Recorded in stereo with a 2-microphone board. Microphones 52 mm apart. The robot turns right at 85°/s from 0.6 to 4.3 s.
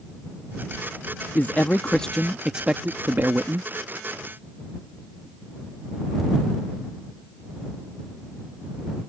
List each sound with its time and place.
1.4 s a man speaking: 95° left; by 3.7 s 65° right